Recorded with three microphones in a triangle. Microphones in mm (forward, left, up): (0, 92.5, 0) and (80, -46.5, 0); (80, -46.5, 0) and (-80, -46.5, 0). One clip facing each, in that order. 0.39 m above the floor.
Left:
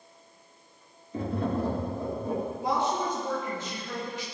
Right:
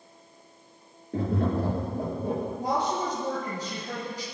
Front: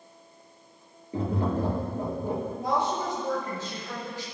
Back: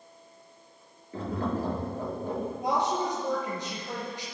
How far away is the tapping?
About 5.5 m.